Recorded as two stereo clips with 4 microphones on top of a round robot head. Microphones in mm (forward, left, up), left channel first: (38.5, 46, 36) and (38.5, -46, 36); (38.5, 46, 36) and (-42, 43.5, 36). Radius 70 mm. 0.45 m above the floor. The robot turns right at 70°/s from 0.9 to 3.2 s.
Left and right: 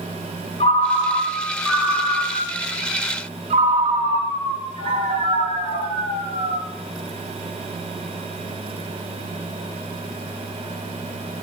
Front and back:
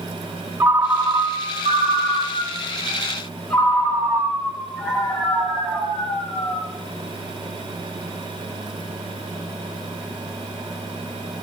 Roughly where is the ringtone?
Behind left.